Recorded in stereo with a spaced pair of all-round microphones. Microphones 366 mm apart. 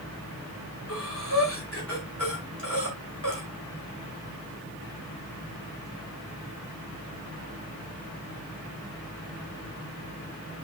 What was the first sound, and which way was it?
Breathing, 35° left (ahead or behind).